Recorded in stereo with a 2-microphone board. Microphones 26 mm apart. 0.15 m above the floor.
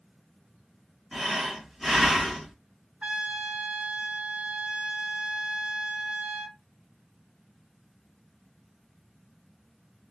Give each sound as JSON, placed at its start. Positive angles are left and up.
{"t": 1.1, "sound": "breathing", "side_deg": -5, "distance_m": 1.7}
{"t": 3.0, "sound": "a trumpet", "side_deg": -55, "distance_m": 0.7}